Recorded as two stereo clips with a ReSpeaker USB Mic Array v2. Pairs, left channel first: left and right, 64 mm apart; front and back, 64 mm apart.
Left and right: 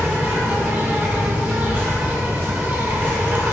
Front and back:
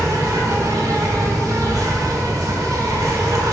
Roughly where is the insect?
Behind right.